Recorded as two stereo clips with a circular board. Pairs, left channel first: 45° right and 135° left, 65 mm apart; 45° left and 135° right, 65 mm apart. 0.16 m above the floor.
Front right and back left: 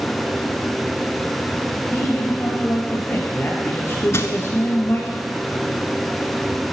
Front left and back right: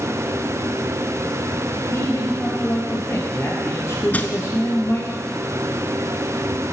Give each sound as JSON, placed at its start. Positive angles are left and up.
{"t": 1.9, "sound": "a man speaking", "azimuth_deg": 5, "distance_m": 2.5}
{"t": 4.1, "sound": "crushing", "azimuth_deg": -15, "distance_m": 0.8}